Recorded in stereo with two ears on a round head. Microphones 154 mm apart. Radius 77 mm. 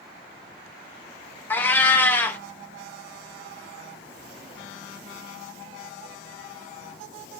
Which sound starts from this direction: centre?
A cat meowing, at 1.5 s.